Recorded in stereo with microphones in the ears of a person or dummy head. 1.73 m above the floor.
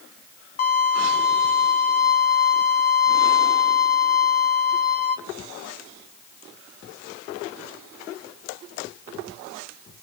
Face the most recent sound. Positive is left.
turn(degrees=45)  # may be behind; listen again after turning